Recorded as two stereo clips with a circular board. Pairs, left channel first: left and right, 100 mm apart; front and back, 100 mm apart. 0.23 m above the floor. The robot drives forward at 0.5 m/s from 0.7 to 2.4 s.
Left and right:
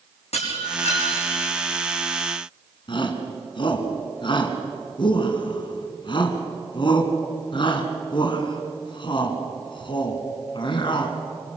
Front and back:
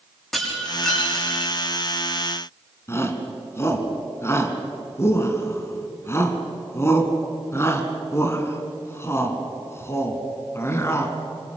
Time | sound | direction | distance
0.3 | breaking glass | 85° left | 7 m
2.9 | a shout | 60° left | 2.5 m